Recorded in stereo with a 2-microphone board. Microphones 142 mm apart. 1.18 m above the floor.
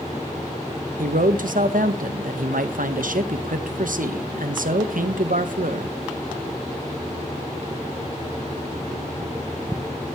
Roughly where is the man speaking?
Right.